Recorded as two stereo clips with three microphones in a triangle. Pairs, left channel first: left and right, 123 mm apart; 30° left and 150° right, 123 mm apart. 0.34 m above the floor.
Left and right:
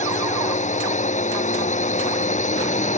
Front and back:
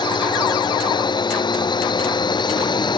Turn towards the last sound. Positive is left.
turn(degrees=80)